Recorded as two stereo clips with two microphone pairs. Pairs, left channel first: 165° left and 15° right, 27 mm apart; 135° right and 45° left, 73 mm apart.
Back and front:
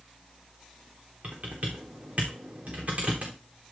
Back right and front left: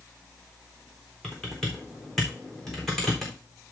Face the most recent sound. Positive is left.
turn(degrees=-45)